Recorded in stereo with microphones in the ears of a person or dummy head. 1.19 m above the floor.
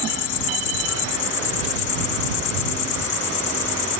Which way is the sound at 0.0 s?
40° left (ahead or behind).